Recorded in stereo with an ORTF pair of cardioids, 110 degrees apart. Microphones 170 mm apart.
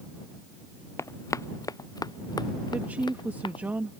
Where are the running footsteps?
15° left; by 3.6 s 25° left.